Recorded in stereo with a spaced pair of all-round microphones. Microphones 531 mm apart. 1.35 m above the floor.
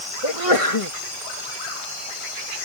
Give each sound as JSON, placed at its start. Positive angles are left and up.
{"t": 0.2, "sound": "a sneeze", "side_deg": 80}